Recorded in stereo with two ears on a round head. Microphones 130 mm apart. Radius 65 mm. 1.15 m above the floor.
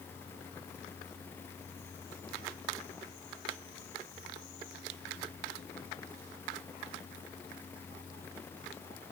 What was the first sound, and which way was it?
Only background noise.